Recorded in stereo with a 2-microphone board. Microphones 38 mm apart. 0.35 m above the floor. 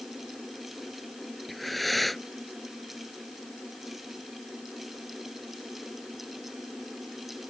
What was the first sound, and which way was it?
Breathing, centre (ahead or behind).